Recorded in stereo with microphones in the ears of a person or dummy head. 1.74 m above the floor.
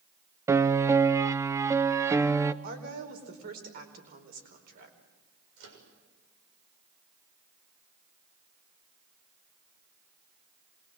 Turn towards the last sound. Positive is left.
turn(degrees=-90)